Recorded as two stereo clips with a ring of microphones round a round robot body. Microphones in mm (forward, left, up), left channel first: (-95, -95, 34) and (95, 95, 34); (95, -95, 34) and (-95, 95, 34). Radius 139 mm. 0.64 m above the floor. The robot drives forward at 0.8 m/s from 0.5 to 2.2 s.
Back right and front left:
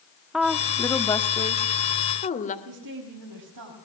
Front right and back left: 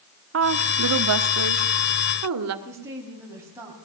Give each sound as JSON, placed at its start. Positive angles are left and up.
{"t": 0.3, "sound": "a woman speaking", "azimuth_deg": 135, "distance_m": 1.1}
{"t": 2.6, "sound": "a woman speaking", "azimuth_deg": 55, "distance_m": 4.5}